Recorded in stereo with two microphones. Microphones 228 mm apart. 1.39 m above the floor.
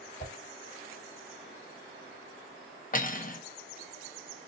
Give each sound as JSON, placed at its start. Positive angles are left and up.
{"t": 0.2, "sound": "a whoosh", "side_deg": 45, "distance_m": 1.6}
{"t": 2.9, "sound": "cutlery clinking", "side_deg": 40, "distance_m": 0.6}